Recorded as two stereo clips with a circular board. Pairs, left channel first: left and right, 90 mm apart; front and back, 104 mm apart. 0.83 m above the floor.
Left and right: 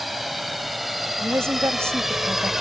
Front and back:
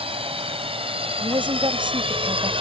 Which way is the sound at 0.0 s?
Straight behind.